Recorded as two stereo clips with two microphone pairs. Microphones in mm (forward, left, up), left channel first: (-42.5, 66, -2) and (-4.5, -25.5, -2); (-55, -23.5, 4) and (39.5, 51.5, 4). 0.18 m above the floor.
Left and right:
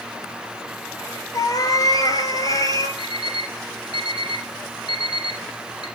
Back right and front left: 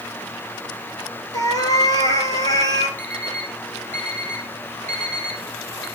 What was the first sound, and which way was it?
A cat meowing, 160° left.